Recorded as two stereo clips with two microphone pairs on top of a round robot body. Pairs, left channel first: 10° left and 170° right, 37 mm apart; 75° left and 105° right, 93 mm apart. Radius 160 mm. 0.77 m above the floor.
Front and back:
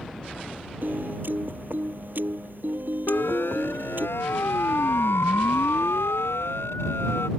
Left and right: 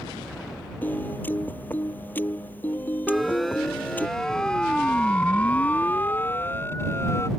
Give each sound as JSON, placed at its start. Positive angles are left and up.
{"t": 0.8, "sound": "a piano", "azimuth_deg": 150}
{"t": 3.1, "sound": "a siren", "azimuth_deg": -15}